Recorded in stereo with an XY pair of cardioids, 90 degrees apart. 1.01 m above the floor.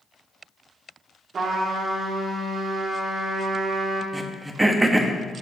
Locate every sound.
1.3 s a trumpet: 60° right, 1.8 m
4.1 s throat clearing: 20° right, 1.1 m